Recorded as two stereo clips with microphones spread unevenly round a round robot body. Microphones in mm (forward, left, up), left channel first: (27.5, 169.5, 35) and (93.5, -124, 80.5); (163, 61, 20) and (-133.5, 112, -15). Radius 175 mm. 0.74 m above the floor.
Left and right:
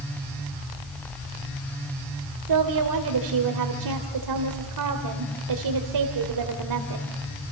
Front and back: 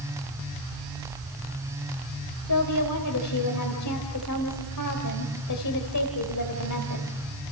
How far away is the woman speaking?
About 3 m.